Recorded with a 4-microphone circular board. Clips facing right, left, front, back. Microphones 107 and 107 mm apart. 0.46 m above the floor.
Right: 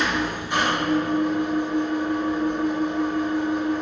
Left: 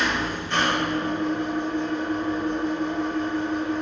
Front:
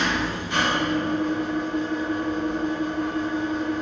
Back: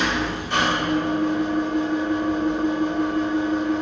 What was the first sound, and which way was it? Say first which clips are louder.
An engine running: right 1 dB, back 1 dB; 170° right.